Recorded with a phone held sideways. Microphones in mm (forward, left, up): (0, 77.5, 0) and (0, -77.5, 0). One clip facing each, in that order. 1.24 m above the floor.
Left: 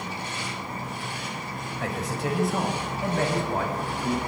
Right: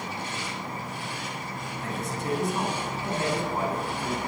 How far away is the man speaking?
About 8 m.